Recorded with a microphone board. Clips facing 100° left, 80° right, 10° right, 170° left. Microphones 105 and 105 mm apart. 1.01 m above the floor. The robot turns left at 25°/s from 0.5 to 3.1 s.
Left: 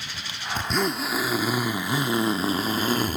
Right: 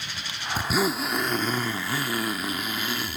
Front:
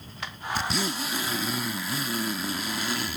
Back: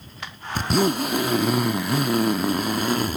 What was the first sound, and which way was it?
A zipper, 155° right.